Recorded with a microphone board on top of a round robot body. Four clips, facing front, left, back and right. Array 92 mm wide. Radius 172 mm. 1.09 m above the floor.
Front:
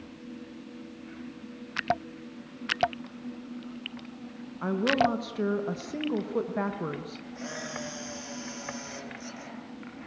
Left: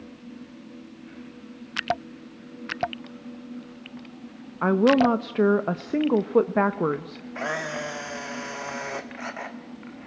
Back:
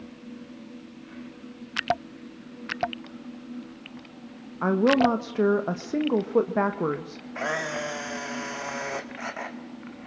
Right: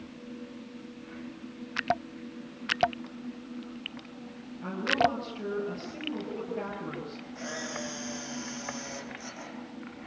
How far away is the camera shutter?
About 1.8 m.